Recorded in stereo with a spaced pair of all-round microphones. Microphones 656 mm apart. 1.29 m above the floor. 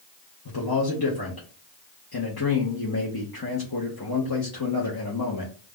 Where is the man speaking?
35° left (ahead or behind), 0.8 m.